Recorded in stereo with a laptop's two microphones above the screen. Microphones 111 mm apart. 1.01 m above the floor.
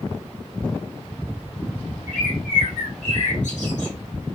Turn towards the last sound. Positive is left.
turn(degrees=80)